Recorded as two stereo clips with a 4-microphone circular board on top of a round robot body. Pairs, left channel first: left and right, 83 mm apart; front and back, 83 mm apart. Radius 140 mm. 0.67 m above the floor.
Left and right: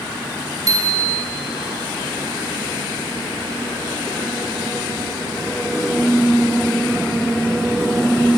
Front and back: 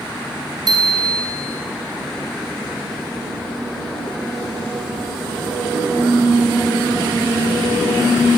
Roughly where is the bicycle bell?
Behind right.